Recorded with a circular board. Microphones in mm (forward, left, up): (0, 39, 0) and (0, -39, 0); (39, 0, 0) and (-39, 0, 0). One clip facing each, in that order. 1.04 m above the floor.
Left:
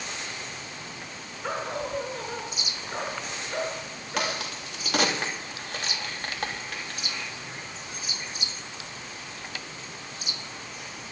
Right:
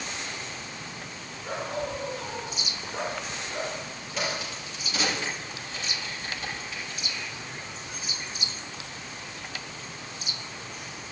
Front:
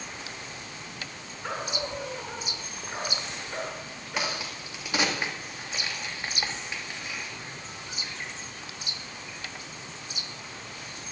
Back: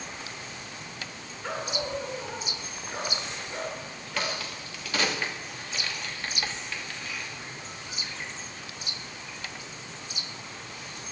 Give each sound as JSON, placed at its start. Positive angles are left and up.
{"t": 1.4, "sound": "a dog barking", "azimuth_deg": 80, "distance_m": 3.5}
{"t": 4.2, "sound": "a crack", "azimuth_deg": 70, "distance_m": 2.5}